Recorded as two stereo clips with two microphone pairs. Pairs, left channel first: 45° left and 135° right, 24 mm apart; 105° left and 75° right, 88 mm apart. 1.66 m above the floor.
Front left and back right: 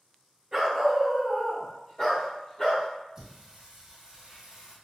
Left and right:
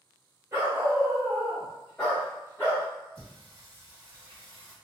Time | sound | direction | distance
0.5 | a dog barking | 85° right | 1.5 m
3.1 | singing | 70° right | 1.5 m